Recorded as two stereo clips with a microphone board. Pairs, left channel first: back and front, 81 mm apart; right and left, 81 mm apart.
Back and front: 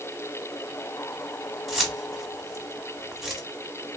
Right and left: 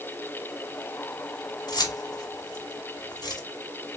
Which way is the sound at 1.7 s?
85° right.